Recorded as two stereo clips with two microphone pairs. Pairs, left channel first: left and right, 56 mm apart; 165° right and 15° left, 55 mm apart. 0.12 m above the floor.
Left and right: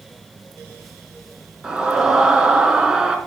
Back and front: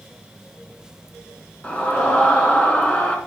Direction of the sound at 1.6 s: 150° right.